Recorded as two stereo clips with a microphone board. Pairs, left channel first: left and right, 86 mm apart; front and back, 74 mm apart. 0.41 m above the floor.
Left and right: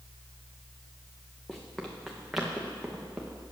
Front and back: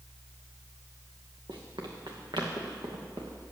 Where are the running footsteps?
175° left, 2.5 m; by 3.4 s 170° right, 3 m.